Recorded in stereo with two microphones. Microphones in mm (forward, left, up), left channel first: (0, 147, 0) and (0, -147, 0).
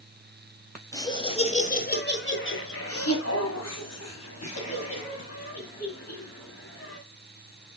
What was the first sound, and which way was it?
Laughter, 10° left (ahead or behind).